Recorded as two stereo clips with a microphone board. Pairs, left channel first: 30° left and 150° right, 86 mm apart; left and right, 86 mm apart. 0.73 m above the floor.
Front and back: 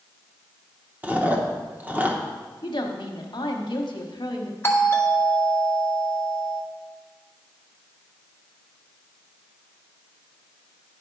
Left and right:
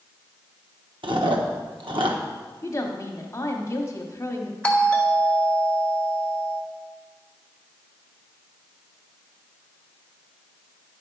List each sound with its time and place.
1.0 s chewing: 80° right, 0.9 m
2.6 s a woman speaking: 40° left, 1.2 m
4.6 s a doorbell: 30° left, 1.2 m